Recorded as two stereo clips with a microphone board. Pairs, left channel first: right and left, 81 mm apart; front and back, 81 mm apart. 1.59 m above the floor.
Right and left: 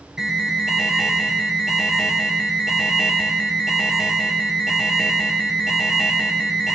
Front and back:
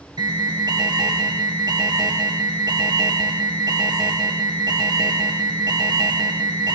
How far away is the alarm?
About 0.9 m.